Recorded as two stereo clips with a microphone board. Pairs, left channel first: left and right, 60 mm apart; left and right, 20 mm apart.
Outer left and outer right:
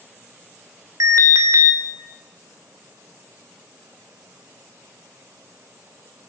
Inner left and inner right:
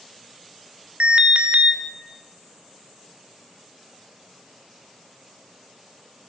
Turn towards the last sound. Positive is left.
turn(degrees=-65)  # may be behind; listen again after turning